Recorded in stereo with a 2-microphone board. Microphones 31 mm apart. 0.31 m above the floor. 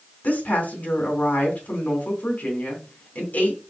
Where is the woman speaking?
60° left (ahead or behind), 3 m.